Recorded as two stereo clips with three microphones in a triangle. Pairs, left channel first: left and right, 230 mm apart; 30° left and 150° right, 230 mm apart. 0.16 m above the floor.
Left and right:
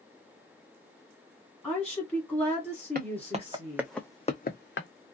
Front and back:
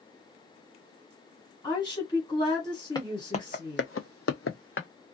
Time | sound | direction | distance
1.6 | a woman speaking | 20° left | 1.5 m
3.0 | footsteps | 45° right | 1.0 m